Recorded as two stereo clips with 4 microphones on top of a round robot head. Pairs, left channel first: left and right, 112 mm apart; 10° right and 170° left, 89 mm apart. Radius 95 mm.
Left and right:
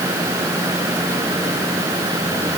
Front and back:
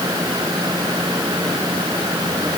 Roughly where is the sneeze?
I don't hear a sneeze.